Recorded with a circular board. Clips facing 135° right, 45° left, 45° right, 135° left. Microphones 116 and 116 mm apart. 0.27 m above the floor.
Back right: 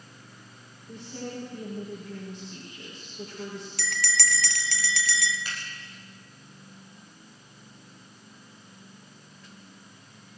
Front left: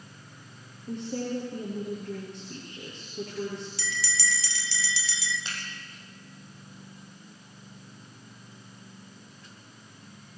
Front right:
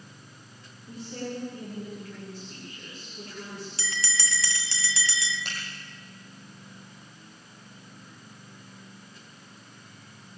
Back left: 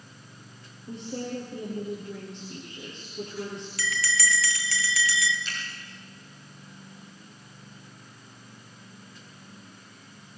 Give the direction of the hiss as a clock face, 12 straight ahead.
No hiss in this recording.